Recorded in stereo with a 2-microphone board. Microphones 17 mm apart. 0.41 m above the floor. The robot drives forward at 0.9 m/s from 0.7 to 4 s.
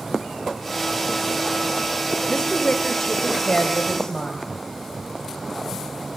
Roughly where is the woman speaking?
Left.